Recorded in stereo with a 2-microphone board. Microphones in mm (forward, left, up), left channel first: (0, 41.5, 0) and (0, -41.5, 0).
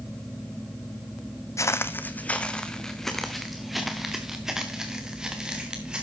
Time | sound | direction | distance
1.6 | footsteps | 35° left (ahead or behind) | 0.6 m